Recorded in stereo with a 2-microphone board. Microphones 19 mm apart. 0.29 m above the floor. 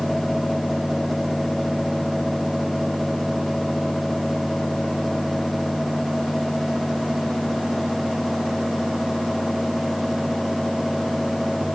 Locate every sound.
Only background noise.